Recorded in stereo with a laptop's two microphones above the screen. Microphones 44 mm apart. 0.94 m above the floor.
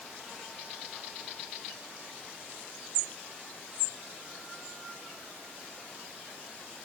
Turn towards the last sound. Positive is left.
No sound to turn to.